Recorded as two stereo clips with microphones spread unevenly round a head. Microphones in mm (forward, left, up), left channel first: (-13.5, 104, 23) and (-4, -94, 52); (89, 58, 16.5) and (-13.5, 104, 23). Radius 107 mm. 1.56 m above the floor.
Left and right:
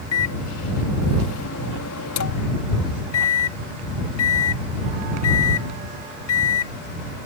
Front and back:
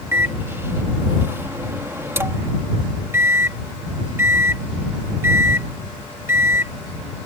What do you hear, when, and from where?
0.1 s a microwave: 90° left